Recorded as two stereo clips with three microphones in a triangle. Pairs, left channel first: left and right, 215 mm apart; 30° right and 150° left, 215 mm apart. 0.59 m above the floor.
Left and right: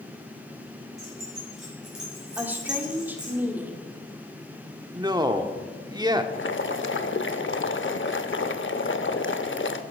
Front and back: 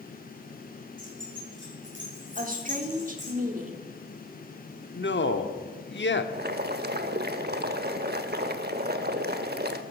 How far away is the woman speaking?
About 1.6 m.